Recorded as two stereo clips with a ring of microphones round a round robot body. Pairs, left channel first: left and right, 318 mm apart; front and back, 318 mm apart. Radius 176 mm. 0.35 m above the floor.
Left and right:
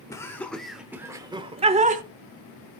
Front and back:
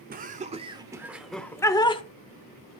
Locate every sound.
0.1 s laughter: 160° left, 1.2 m; by 2.0 s 55° right, 1.2 m